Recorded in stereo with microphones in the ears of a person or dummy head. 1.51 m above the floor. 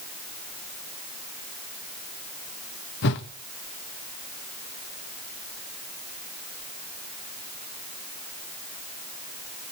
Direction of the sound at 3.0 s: 60° left (ahead or behind).